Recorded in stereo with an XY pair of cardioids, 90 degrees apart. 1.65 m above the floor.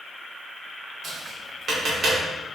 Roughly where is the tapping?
Ahead right.